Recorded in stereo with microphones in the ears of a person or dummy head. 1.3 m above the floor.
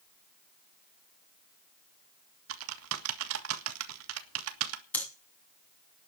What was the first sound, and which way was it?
Typing on a keyboard, 75° right (ahead or behind).